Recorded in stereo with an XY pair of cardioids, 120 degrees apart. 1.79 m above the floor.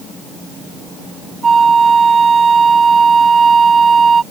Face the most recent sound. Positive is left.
turn(degrees=-25)